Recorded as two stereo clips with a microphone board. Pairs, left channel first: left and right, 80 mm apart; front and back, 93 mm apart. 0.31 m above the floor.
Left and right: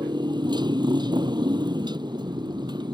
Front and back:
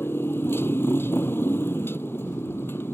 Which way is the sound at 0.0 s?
65° right.